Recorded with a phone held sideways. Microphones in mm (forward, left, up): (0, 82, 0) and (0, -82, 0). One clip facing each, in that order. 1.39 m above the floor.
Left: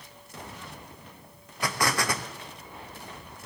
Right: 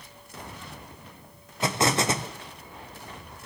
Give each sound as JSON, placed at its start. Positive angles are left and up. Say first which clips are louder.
{"t": 1.6, "sound": "an explosion", "louder": "right 4 dB", "side_deg": -25, "distance_m": 0.6}